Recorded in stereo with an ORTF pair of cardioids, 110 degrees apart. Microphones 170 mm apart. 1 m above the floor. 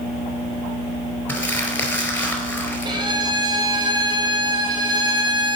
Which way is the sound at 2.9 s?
25° right.